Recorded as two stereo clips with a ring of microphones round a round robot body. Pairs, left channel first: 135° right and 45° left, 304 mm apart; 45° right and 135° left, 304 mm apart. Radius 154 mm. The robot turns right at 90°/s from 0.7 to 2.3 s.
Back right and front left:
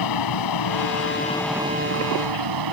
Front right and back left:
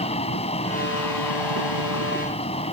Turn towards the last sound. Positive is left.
turn(degrees=25)